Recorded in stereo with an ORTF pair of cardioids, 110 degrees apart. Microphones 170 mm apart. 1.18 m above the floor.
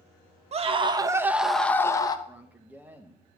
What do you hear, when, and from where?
0.5 s a scream: 40° right, 1.0 m; by 2.2 s 25° left, 1.0 m
2.3 s a man speaking: 10° right, 0.9 m